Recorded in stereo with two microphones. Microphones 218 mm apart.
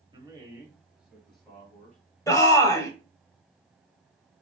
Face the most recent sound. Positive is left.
turn(degrees=15)  # may be behind; listen again after turning